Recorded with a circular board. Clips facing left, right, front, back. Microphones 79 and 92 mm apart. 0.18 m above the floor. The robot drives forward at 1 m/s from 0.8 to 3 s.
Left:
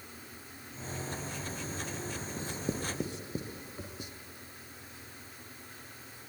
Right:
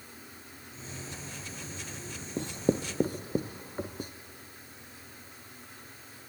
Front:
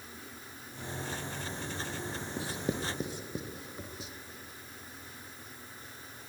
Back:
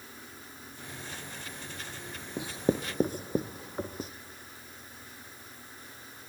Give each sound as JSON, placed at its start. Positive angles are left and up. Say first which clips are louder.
{"t": 2.4, "sound": "writing", "louder": "right 9 dB, back 7 dB", "azimuth_deg": -105, "distance_m": 1.0}